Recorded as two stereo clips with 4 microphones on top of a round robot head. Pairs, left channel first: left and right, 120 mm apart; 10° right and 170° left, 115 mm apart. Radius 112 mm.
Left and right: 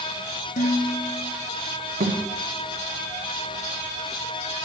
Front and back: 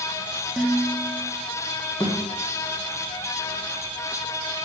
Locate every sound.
0.6 s dishes clattering: 85° left, 1.8 m
2.0 s a thud: 85° right, 1.9 m